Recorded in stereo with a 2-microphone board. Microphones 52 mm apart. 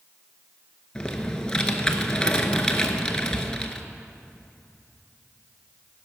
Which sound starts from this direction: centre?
Typing on a keyboard, at 0.9 s.